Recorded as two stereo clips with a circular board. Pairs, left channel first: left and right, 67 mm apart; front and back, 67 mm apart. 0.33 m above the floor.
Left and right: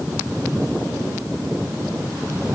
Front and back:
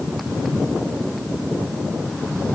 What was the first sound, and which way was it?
Only background noise.